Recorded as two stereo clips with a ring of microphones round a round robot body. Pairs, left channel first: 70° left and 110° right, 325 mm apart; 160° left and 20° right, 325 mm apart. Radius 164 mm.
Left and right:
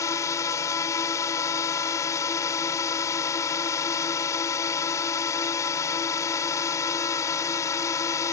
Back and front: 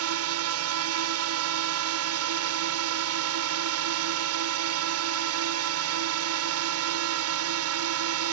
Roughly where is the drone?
Ahead.